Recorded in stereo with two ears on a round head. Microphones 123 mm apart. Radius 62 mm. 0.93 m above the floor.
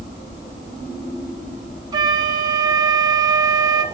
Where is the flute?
30° right (ahead or behind), 1.5 m.